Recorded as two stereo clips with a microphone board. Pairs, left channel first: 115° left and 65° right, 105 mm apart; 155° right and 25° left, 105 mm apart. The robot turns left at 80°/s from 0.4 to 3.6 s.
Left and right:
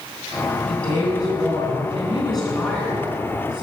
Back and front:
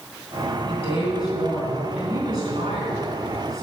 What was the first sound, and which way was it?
A woman speaking, 160° right.